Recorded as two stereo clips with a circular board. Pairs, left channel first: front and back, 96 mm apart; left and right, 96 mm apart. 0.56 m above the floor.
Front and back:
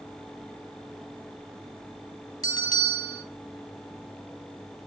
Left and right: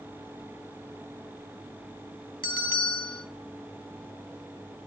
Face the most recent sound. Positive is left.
turn(degrees=-50)